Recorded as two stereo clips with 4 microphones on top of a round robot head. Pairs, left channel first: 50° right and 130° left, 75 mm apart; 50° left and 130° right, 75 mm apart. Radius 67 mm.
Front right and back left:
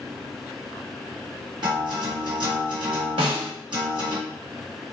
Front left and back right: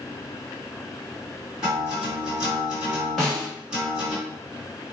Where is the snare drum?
135° left, 1.0 m.